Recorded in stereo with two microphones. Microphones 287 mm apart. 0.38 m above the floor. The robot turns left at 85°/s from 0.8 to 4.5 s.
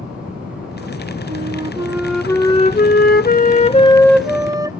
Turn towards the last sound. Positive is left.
turn(degrees=-25)